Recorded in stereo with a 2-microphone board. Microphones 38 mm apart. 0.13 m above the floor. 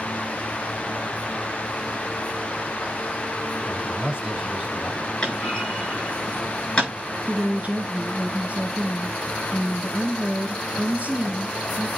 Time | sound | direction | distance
3.7 | a man speaking | 25° right (ahead or behind) | 3 m
5.2 | a clunk | 15° left (ahead or behind) | 7.5 m
7.3 | a woman speaking | 40° right (ahead or behind) | 1.4 m